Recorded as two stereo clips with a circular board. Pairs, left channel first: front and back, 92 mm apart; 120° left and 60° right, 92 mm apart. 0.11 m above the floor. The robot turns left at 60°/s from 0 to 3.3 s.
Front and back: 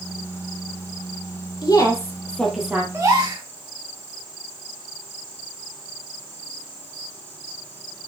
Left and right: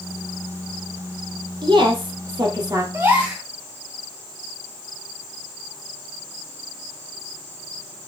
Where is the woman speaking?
35° right, 3 m; by 2.8 s 110° right, 3 m.